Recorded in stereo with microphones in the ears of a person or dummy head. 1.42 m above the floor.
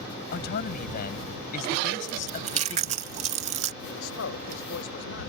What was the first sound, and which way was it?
A man speaking, 60° left (ahead or behind).